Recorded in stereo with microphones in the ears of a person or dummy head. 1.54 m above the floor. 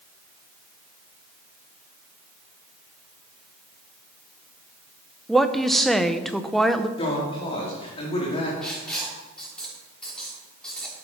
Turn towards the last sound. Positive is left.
turn(degrees=5)  # may be behind; listen again after turning